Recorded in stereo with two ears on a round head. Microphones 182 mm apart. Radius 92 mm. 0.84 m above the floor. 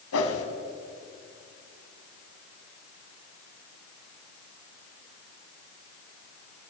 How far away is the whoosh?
About 2.5 m.